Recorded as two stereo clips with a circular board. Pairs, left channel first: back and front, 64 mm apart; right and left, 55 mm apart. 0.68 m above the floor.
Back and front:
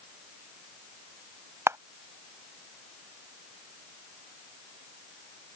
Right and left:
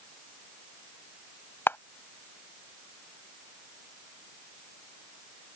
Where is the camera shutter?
40° right.